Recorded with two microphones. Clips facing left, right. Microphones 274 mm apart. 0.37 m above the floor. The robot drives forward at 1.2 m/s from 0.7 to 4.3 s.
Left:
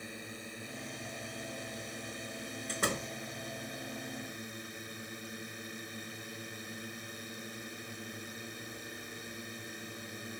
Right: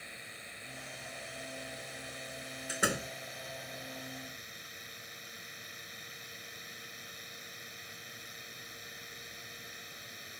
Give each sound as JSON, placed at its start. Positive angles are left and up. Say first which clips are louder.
{"t": 0.0, "sound": "a drone", "louder": "left 9 dB", "side_deg": 50}
{"t": 2.7, "sound": "a door slam", "louder": "right 1 dB", "side_deg": -10}